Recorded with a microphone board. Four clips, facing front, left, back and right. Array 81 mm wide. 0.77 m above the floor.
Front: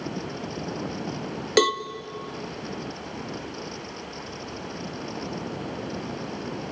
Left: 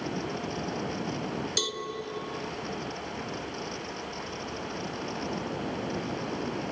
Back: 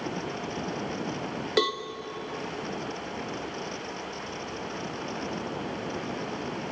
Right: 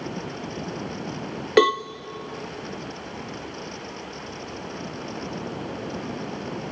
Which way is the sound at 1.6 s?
75° right.